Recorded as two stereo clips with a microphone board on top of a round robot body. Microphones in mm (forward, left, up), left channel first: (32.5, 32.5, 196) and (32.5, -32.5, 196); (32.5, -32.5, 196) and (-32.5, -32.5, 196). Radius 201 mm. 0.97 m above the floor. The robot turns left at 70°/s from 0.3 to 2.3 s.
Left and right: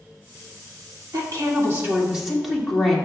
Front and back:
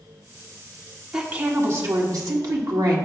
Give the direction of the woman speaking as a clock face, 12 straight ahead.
3 o'clock.